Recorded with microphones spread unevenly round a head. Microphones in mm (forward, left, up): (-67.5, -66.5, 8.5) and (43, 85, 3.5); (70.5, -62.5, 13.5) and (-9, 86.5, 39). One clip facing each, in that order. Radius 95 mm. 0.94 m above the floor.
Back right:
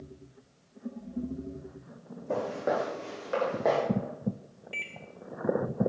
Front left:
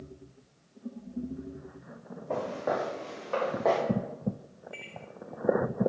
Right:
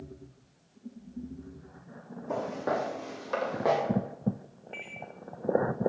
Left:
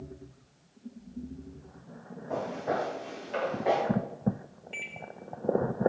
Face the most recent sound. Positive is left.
turn(degrees=180)